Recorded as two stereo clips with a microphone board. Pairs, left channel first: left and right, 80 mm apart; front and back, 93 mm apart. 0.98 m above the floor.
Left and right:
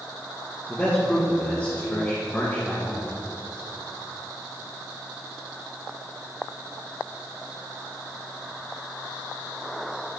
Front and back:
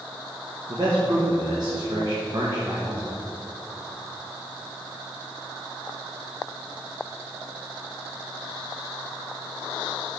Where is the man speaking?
155° left, 1.2 m.